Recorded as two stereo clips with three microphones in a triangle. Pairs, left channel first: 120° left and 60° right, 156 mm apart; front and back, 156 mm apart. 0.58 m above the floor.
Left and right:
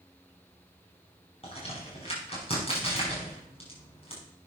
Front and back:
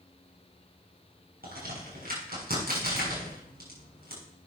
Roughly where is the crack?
Behind.